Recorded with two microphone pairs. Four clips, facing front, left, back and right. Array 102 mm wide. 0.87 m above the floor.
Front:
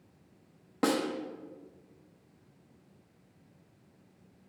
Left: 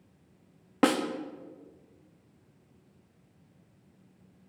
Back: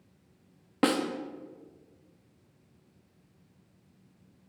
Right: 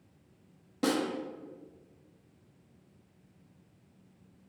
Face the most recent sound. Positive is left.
turn(degrees=105)